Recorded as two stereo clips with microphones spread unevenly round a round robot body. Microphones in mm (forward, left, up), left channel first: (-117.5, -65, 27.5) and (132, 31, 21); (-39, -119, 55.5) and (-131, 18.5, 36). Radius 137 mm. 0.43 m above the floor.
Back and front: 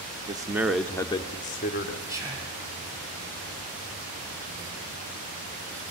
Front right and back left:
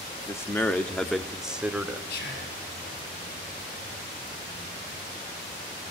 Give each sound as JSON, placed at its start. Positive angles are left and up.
{"t": 0.3, "sound": "a man speaking", "azimuth_deg": 5, "distance_m": 0.8}
{"t": 2.1, "sound": "whispering", "azimuth_deg": -60, "distance_m": 5.5}